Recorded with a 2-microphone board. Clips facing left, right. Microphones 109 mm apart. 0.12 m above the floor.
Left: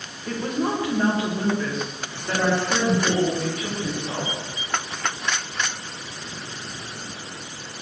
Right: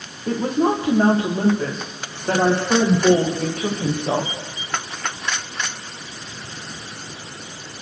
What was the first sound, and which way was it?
A woman speaking, 30° right (ahead or behind).